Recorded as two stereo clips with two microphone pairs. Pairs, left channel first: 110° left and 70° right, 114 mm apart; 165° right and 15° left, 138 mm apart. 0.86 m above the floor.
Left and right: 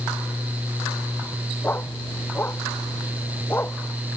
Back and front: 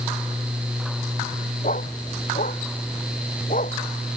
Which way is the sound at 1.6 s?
Straight behind.